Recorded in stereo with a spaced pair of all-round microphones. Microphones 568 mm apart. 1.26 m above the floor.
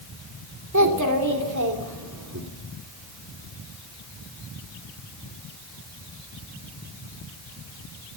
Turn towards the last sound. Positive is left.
turn(degrees=-30)  # may be behind; listen again after turning